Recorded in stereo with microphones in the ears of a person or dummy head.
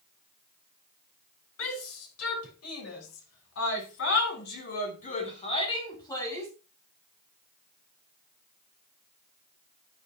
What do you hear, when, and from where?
1.6 s a shout: 80° left, 5 m; by 6.5 s 15° left (ahead or behind), 4 m